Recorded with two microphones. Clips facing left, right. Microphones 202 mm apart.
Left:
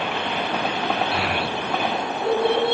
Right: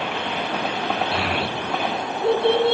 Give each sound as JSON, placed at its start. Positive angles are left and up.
{"t": 1.1, "sound": "a child speaking", "side_deg": -25, "distance_m": 4.5}